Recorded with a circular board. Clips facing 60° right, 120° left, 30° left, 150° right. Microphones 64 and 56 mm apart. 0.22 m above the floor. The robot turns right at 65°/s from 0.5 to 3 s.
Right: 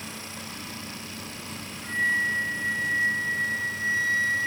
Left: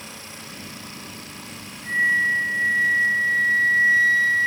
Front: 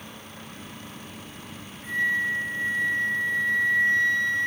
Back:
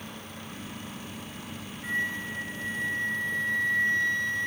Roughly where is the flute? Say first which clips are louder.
Left 5 dB, front 6 dB; ahead right.